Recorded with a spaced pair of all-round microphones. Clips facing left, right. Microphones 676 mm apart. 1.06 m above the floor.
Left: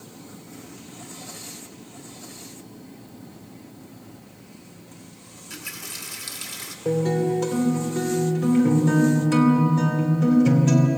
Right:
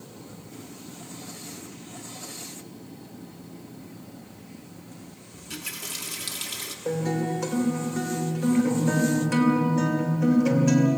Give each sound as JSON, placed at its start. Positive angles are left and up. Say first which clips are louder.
{"t": 5.3, "sound": "a running tap", "louder": "right 2 dB", "side_deg": -60, "distance_m": 1.5}
{"t": 6.8, "sound": "a guitar", "louder": "left 5 dB", "side_deg": 60, "distance_m": 3.0}